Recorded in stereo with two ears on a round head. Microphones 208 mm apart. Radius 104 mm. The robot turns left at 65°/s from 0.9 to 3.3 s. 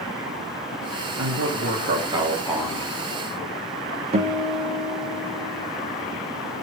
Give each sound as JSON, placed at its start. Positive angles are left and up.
{"t": 1.2, "sound": "a man speaking", "azimuth_deg": -95, "distance_m": 1.6}
{"t": 4.1, "sound": "a guitar", "side_deg": -25, "distance_m": 0.7}